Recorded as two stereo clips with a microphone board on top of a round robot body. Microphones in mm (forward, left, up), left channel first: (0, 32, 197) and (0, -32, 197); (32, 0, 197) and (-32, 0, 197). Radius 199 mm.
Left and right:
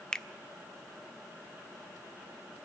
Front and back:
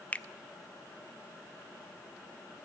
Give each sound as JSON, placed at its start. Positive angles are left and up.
{"t": 0.1, "sound": "a finger snap", "azimuth_deg": 25, "distance_m": 0.7}